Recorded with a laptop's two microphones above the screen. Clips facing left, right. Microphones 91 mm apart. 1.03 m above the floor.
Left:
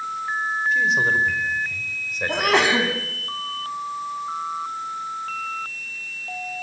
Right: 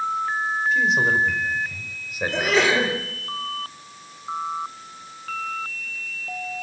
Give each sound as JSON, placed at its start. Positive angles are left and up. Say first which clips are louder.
{"t": 0.7, "sound": "a man speaking", "louder": "even", "side_deg": 0, "distance_m": 5.0}
{"t": 2.3, "sound": "a sneeze", "louder": "left 1 dB", "side_deg": 65, "distance_m": 8.5}